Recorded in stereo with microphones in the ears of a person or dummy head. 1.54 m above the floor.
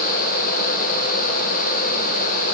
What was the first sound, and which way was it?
Only background noise.